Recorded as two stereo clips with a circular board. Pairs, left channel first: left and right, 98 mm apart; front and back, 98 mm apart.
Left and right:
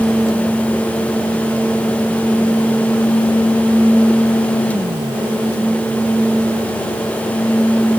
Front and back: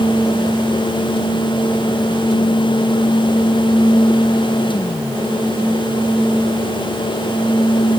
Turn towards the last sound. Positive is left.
No sound to turn to.